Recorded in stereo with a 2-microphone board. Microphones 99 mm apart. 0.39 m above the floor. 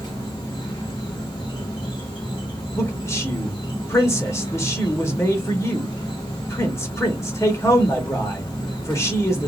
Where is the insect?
50° left (ahead or behind), 1.4 m.